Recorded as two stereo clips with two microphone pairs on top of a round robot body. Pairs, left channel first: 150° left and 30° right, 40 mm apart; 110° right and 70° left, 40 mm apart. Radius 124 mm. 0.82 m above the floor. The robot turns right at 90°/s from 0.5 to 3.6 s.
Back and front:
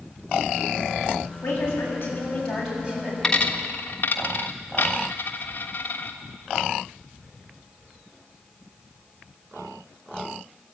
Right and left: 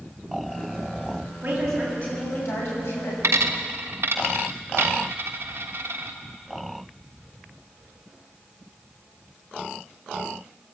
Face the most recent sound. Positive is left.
turn(degrees=100)